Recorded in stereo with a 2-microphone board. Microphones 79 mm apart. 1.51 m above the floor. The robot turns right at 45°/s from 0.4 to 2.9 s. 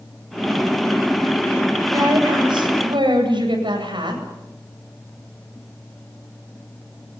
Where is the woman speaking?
130° right, 9 m; by 4.2 s 85° right, 9 m.